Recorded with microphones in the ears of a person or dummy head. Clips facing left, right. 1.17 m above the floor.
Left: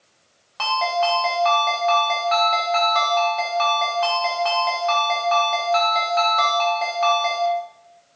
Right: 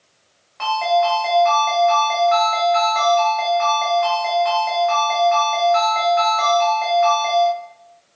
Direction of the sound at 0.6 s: 50° left (ahead or behind).